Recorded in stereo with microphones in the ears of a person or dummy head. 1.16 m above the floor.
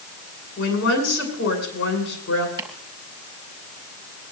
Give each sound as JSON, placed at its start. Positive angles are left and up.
{"t": 0.6, "sound": "a woman speaking", "side_deg": 70, "distance_m": 8.5}
{"t": 2.6, "sound": "chopping", "side_deg": -25, "distance_m": 4.0}